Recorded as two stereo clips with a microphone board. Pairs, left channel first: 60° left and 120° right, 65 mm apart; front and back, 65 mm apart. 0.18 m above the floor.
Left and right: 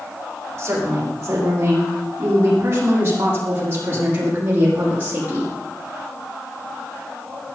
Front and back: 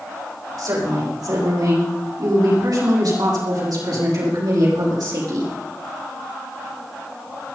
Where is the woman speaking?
170° right, 9 m; by 5.5 s straight behind, 7 m.